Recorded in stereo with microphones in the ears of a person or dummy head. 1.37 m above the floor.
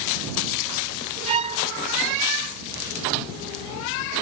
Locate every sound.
1.3 s a violin: 30° right (ahead or behind)